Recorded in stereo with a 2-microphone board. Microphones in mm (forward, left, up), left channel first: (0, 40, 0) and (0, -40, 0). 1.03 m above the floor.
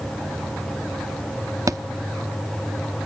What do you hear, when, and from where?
1.7 s a thud: 45° right (ahead or behind), 0.7 m